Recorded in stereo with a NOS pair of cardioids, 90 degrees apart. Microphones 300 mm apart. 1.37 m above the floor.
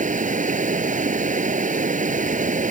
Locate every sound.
0.0 s running water: 25° right